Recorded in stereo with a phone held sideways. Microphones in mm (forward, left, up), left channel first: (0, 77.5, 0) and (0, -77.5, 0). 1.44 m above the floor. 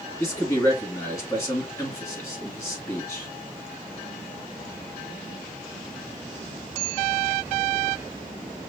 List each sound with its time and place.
0.2 s a man speaking: 20° left (ahead or behind), 2 m